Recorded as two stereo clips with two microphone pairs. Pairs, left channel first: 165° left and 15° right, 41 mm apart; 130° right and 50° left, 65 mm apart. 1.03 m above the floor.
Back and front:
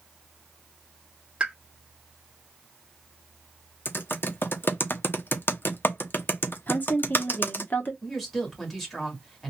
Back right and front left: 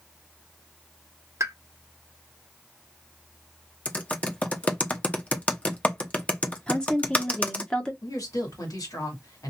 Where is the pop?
45° left, 0.9 m.